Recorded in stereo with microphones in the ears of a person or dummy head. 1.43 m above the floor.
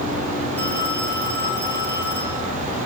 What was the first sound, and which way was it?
A phone ringing, 10° left (ahead or behind).